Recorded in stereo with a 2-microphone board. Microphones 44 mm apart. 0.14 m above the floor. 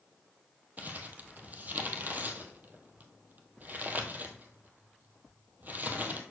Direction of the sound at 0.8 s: 40° right (ahead or behind).